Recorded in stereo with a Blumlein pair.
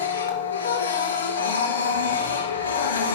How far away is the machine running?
About 3 m.